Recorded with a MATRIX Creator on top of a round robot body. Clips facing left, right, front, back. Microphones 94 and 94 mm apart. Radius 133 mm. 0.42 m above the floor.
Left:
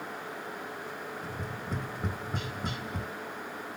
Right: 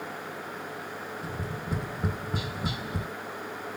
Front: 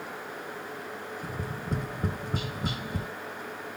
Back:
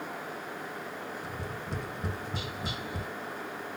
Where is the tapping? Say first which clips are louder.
Right 3 dB, front 3 dB; 10° right, 1.3 m.